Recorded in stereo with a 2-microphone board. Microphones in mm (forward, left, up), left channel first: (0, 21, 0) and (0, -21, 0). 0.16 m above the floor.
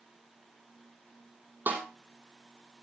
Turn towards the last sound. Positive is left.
turn(degrees=-50)  # may be behind; listen again after turning